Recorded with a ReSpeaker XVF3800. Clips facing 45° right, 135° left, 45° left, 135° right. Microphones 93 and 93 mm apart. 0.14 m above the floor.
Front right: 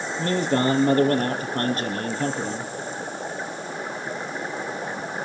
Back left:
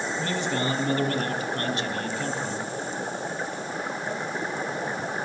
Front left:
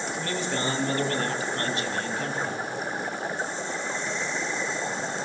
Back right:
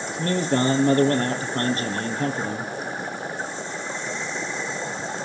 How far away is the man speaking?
About 3 m.